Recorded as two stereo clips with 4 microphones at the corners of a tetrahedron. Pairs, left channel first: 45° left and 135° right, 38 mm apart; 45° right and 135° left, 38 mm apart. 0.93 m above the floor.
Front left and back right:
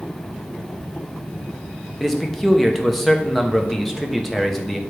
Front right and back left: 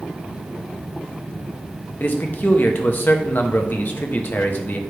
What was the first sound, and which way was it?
A man speaking, 45° right.